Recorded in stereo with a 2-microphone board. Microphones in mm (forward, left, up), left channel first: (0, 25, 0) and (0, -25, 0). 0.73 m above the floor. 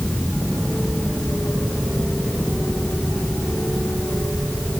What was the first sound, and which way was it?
Only background noise.